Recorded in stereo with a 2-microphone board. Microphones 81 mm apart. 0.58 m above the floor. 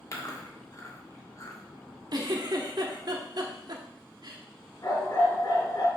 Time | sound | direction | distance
0.1 | chewing | 40° left (ahead or behind) | 1.4 m
2.1 | a giggle | 55° right (ahead or behind) | 1.1 m
4.8 | a dog barking | 50° left (ahead or behind) | 3.5 m